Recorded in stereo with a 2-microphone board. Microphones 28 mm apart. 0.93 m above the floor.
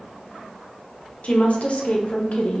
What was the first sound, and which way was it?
A woman speaking, 55° left (ahead or behind).